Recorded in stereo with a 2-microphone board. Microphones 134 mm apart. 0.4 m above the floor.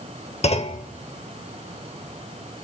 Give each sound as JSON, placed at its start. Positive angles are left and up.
{"t": 0.4, "sound": "a clunk", "side_deg": 50, "distance_m": 0.7}